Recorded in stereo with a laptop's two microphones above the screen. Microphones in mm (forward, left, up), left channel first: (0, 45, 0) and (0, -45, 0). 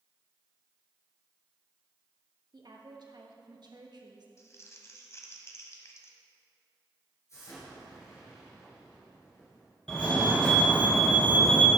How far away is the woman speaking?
About 1.0 m.